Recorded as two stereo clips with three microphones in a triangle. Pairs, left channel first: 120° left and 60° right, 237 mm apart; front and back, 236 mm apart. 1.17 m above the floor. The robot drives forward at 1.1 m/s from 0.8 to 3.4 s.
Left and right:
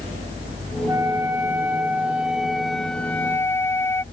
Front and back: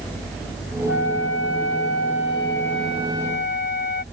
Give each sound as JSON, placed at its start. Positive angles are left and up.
{"t": 0.9, "sound": "a flute", "azimuth_deg": 20}